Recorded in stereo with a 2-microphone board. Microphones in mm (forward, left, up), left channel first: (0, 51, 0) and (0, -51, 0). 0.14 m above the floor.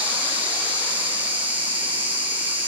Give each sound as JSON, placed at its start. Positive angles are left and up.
{"t": 0.0, "sound": "an insect", "side_deg": -15, "distance_m": 3.0}